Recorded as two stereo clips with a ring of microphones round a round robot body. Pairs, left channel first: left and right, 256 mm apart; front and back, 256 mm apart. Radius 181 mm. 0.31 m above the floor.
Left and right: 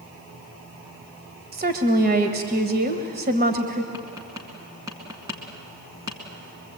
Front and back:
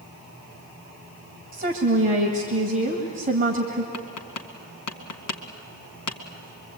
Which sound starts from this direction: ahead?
Tapping, at 3.9 s.